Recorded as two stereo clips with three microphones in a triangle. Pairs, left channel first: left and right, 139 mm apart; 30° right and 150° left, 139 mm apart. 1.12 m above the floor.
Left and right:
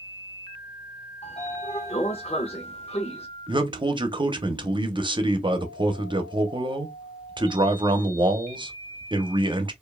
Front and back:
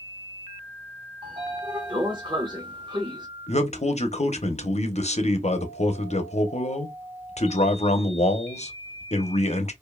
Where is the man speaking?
45° right, 0.8 m.